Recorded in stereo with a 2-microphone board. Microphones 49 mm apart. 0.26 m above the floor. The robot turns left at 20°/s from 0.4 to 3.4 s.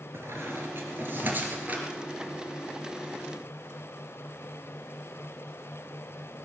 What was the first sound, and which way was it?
A squeak, 60° right (ahead or behind).